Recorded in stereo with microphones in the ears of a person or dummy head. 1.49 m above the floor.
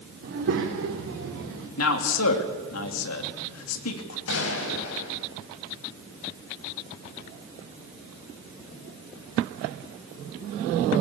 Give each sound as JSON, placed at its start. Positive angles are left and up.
{"t": 0.2, "sound": "a child speaking", "side_deg": -60, "distance_m": 1.9}
{"t": 1.8, "sound": "a man speaking", "side_deg": 90, "distance_m": 2.5}
{"t": 4.3, "sound": "a gunshot", "side_deg": 70, "distance_m": 3.5}